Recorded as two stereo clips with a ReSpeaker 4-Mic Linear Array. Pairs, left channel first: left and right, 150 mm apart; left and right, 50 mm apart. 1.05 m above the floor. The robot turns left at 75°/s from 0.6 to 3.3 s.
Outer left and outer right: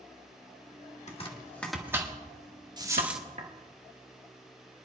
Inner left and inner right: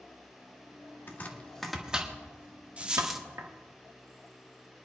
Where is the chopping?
50° left (ahead or behind), 1.4 m; by 3.5 s 60° right (ahead or behind), 1.4 m.